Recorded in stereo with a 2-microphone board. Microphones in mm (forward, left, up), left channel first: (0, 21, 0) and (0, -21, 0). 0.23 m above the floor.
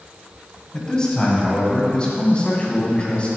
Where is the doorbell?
I don't hear a doorbell.